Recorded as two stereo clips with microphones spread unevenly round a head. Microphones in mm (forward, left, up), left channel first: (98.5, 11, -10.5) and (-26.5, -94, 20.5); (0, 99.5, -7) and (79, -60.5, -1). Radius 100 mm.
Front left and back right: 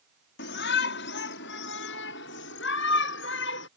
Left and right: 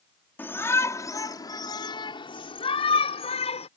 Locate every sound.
0.4 s a shout: 35° left; by 3.7 s 60° left